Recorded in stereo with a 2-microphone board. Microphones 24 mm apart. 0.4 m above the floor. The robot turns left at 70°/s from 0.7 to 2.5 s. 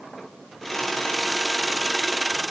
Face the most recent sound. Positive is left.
No sound to turn to.